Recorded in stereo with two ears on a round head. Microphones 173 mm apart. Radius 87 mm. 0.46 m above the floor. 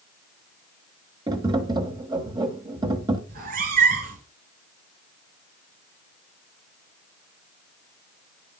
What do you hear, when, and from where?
1.3 s tapping: 25° right (ahead or behind), 1.3 m
3.3 s a cat meowing: 45° right (ahead or behind), 2.0 m